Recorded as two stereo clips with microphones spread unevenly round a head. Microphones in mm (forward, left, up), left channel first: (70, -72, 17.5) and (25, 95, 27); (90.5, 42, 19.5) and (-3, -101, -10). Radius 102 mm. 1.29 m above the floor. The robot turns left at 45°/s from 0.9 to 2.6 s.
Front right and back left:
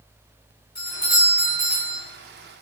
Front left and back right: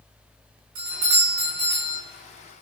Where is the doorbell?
145° right, 4 m; by 2.0 s 165° left, 4 m.